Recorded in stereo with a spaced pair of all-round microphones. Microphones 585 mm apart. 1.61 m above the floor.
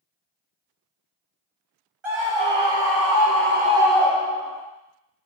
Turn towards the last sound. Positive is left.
turn(degrees=35)  # may be behind; listen again after turning